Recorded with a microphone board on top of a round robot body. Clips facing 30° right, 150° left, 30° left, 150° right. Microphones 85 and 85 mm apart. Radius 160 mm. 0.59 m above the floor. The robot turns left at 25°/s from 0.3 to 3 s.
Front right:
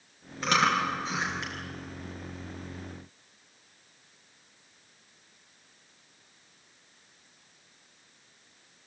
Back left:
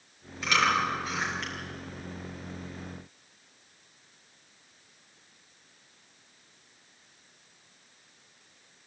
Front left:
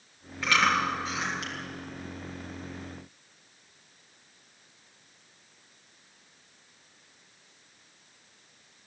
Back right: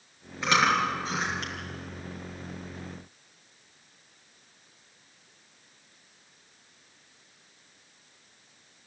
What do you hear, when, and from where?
0.4 s chewing: 80° right, 6.5 m; by 1.5 s 105° right, 6.5 m